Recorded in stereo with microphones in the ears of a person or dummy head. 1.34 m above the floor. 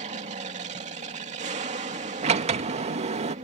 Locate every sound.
0.0 s an aircraft: 35° right (ahead or behind)
2.2 s a sliding door: 35° right (ahead or behind)